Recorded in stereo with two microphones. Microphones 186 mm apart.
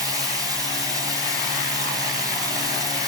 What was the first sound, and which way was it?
Running water, 20° right (ahead or behind).